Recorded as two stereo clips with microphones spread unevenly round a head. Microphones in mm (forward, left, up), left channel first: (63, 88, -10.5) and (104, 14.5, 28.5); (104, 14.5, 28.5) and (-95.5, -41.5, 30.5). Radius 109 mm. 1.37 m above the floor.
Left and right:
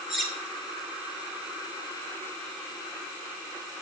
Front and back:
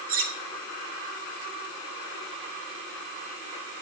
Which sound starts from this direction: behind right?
Cutlery clinking, at 0.1 s.